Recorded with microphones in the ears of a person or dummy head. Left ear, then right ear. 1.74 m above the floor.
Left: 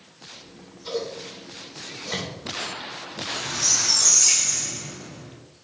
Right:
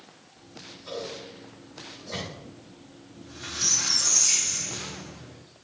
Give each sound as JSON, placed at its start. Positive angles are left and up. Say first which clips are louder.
{"t": 0.4, "sound": "scissors", "louder": "even", "side_deg": 55, "distance_m": 2.5}
{"t": 3.1, "sound": "a squeak", "louder": "left 6 dB", "side_deg": 75, "distance_m": 3.5}